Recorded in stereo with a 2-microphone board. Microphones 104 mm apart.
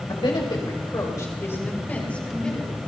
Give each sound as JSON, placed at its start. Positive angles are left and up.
{"t": 0.1, "sound": "a woman speaking", "side_deg": 55, "distance_m": 3.5}